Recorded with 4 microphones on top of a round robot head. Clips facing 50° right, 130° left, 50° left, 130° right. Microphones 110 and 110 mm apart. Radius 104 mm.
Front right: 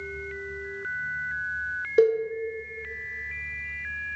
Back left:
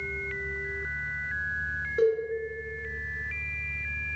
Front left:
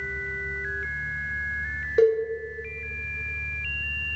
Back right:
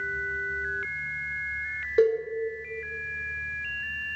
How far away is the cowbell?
About 0.7 m.